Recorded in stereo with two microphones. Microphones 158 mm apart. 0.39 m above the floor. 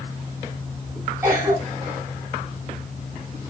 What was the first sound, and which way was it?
A cough, 15° right (ahead or behind).